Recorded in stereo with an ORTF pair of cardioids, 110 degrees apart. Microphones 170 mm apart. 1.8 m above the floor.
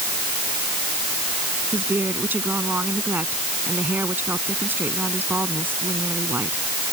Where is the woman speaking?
10° right.